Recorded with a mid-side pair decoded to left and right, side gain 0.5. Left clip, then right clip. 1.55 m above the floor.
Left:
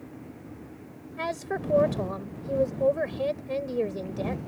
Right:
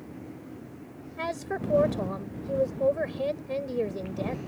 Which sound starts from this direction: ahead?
A woman speaking, at 1.2 s.